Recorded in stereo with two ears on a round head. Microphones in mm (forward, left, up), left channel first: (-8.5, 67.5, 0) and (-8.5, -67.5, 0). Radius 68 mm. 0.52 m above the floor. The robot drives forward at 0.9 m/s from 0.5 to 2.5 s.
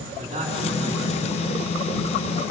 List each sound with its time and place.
0.2 s a man speaking: 40° right (ahead or behind), 6 m; by 1.7 s 35° right (ahead or behind), 7 m